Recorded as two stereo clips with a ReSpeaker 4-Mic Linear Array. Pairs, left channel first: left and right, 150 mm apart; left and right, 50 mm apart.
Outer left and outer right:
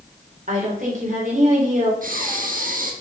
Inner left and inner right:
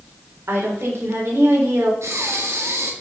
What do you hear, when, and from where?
0.5 s a woman speaking: 55° right (ahead or behind), 3 m
2.0 s breathing: 65° right (ahead or behind), 1.3 m